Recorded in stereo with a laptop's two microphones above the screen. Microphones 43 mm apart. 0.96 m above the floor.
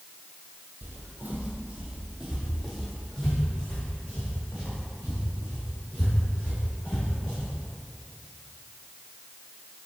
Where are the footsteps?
55° right (ahead or behind), 1.6 m; by 7.5 s 35° left (ahead or behind), 5.5 m.